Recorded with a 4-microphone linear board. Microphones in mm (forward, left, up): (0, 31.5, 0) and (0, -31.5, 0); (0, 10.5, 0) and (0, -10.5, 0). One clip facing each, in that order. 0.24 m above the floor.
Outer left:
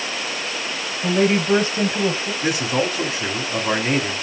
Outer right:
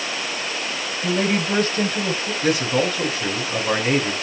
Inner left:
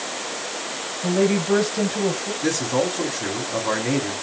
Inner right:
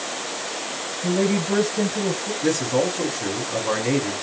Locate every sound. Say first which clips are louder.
1.0 s a woman speaking: outer left 4 dB, inner left 2 dB; 25° left (ahead or behind), 1.0 m
2.4 s a man speaking: outer right 2 dB, inner right 1 dB; 10° left (ahead or behind), 1.6 m